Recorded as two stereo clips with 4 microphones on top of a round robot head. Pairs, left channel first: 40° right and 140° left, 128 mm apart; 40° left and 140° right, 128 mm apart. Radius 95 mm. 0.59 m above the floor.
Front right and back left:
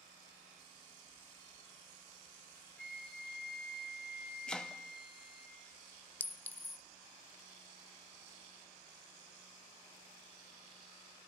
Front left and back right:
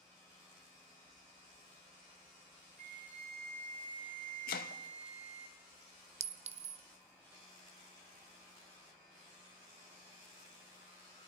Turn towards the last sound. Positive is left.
turn(degrees=-115)